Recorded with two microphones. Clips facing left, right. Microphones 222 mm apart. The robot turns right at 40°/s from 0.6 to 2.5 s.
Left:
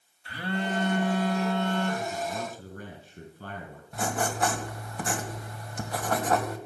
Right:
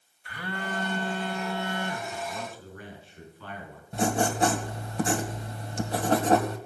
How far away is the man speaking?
About 4 m.